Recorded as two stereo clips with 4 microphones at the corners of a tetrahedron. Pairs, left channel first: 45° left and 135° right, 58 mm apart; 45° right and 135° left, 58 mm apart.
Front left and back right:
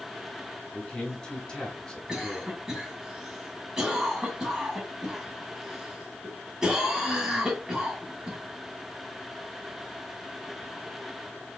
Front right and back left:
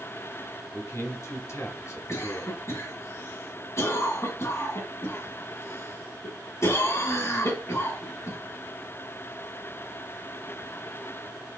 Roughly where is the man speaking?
Ahead right.